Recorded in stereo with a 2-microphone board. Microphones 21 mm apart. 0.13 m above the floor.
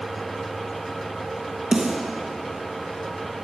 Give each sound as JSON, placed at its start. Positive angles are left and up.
{"t": 1.7, "sound": "a snare drum", "side_deg": -50, "distance_m": 2.5}